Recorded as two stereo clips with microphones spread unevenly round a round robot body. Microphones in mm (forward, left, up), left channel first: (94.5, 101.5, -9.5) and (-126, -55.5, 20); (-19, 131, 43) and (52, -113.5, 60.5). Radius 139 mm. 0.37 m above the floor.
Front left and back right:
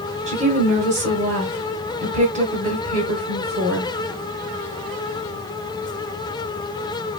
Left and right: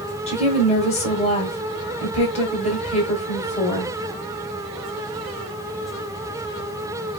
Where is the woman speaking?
155° left, 1.3 m.